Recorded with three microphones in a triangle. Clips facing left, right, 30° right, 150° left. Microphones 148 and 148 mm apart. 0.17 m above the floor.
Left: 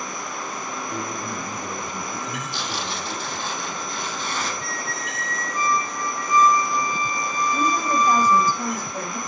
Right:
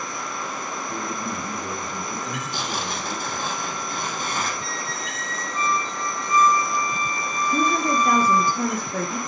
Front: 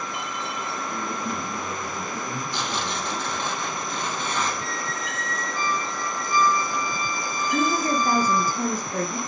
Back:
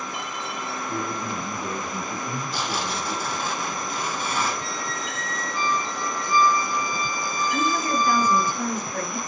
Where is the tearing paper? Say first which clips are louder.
Right 1 dB, back 1 dB; 130° right, 4 m.